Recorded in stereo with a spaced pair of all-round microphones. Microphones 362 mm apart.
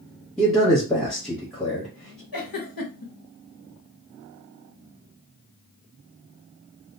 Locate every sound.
0.4 s a man speaking: centre (ahead or behind), 1.0 m
2.3 s a giggle: 70° left (ahead or behind), 0.7 m